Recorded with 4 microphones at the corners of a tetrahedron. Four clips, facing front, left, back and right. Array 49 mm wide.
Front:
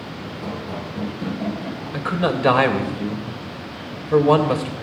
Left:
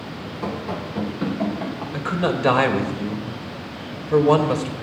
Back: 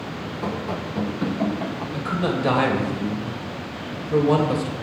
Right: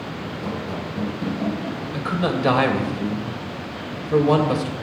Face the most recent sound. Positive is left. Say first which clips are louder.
# left 1 dB, front 3 dB
turn(degrees=20)